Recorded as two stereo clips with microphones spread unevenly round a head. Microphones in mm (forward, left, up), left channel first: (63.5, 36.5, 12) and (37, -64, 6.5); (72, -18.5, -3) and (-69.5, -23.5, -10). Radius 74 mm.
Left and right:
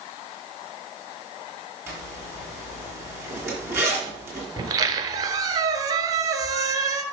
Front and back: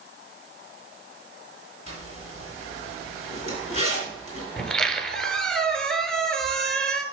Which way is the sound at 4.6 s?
75° right.